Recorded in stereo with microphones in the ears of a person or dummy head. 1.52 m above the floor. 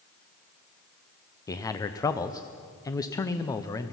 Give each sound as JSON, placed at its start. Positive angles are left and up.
{"t": 1.5, "sound": "a man speaking", "side_deg": 20, "distance_m": 0.7}